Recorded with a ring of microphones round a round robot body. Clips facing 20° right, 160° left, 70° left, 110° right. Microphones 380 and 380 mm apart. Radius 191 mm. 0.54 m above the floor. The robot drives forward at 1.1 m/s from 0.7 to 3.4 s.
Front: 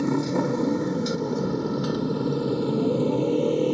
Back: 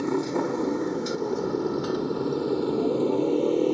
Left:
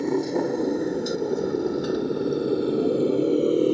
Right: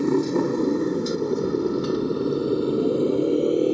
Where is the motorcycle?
40° right; by 3.8 s 20° right.